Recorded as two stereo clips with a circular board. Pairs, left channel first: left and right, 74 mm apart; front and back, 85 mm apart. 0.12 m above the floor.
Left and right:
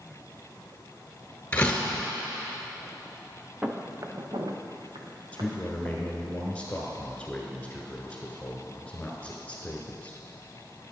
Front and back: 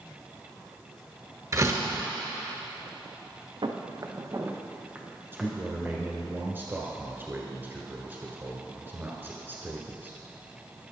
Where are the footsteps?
165° right, 0.9 m; by 6.3 s 85° right, 2.5 m.